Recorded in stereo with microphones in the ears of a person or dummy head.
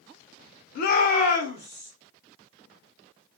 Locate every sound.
0.8 s a shout: 45° left (ahead or behind), 0.7 m; by 1.9 s 30° left (ahead or behind), 1.2 m